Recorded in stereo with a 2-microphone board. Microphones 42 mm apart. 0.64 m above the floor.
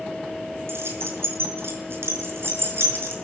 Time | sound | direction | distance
0.7 | keys jangling | 80° right | 5.5 m